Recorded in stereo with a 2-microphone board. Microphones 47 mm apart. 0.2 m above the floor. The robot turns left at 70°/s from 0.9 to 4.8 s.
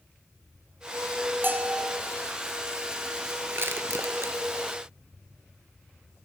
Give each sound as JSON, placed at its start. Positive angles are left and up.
{"t": 1.4, "sound": "a bell", "azimuth_deg": -120, "distance_m": 0.9}
{"t": 3.5, "sound": "crushing", "side_deg": -50, "distance_m": 0.8}